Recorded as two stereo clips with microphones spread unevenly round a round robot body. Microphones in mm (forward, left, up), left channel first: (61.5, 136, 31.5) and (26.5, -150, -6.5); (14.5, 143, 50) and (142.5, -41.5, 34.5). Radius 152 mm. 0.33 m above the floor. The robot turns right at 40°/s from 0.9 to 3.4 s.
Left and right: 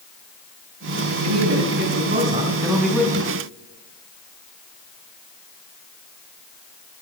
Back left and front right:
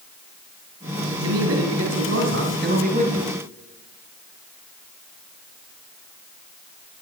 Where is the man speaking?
75° right, 3.5 m; by 3.3 s 5° left, 3.5 m.